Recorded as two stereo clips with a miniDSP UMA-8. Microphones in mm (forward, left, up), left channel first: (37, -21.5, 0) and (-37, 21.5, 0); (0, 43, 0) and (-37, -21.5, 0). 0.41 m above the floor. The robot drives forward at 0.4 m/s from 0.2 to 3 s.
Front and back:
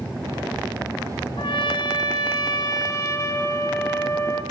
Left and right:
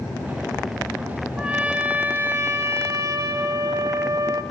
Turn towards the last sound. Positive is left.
turn(degrees=-85)